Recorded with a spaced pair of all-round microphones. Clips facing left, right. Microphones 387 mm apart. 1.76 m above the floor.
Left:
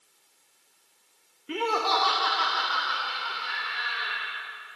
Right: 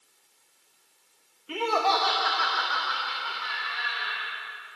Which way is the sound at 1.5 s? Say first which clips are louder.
Right 1 dB; 35° left (ahead or behind).